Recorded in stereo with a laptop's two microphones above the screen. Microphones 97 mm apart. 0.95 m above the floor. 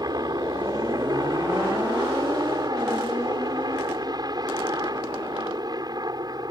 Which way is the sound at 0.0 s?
45° right (ahead or behind).